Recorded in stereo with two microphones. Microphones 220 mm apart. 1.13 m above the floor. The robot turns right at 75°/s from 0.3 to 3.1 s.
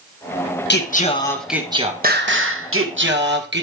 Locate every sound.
0.7 s singing: 125° left, 1.4 m; by 3.6 s 55° right, 1.4 m